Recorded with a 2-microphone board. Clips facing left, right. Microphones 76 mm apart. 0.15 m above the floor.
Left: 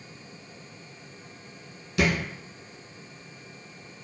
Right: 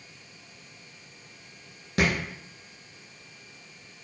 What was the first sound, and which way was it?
A thud, 50° right (ahead or behind).